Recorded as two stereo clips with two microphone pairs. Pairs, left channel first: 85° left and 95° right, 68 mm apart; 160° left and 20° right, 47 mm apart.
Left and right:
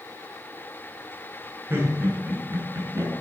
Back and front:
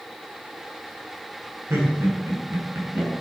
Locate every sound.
1.7 s laughter: 40° right, 4 m; by 3.1 s 50° right, 4.5 m